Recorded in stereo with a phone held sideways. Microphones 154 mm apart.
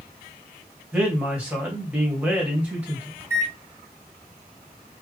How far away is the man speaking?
About 2.5 m.